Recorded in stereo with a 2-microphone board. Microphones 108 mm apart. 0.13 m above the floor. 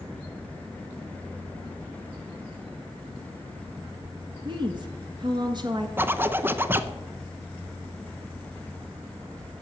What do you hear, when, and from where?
4.5 s a woman speaking: 45° right (ahead or behind), 1.6 m
6.0 s a zipper: 20° right (ahead or behind), 0.6 m